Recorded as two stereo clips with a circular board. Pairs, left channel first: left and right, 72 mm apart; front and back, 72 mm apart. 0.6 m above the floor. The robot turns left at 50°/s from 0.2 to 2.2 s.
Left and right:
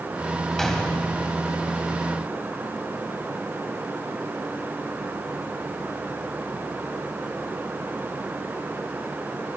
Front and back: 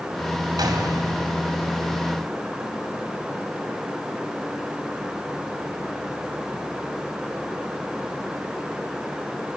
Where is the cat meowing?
I don't hear a cat meowing.